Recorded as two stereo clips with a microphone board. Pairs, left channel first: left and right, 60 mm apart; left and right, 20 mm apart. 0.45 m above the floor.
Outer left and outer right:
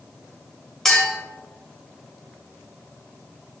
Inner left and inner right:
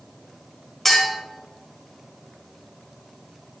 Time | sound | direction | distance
0.8 | a clink | 5° left (ahead or behind) | 1.3 m